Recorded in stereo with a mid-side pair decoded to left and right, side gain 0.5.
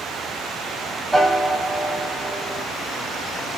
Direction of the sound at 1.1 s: 15° right.